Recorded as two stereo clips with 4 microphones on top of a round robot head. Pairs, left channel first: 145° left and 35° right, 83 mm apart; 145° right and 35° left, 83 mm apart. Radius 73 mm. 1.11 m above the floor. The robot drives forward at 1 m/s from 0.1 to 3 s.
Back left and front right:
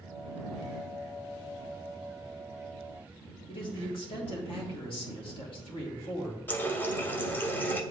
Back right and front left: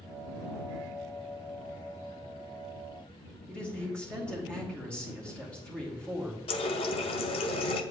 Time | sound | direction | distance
3.5 | a man speaking | 140° left | 2.5 m
6.5 | a running tap | 145° right | 0.8 m